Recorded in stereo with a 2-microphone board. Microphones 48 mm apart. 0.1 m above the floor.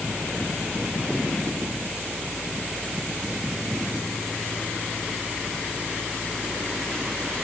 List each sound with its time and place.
Only background noise.